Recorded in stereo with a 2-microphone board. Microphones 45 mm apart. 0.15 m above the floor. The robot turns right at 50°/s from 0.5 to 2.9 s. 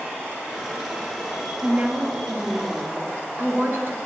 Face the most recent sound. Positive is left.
turn(degrees=-65)